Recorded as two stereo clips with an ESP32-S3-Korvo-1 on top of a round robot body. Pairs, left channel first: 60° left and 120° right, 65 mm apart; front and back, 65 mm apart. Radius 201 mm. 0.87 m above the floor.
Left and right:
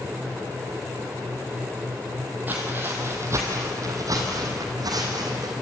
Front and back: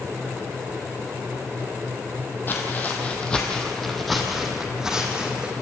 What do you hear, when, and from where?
2.5 s footsteps: 55° right, 2 m; by 5.5 s 105° right, 3 m